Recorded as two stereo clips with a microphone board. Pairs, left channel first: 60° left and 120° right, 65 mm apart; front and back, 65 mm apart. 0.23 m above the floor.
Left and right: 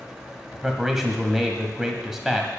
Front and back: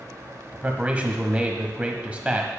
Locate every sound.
0.5 s a man speaking: 165° left, 1.4 m